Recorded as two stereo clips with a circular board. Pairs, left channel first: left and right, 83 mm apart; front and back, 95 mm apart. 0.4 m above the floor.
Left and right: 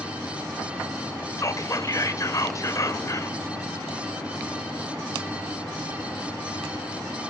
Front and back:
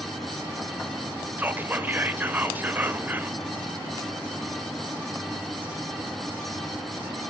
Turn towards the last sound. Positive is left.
turn(degrees=115)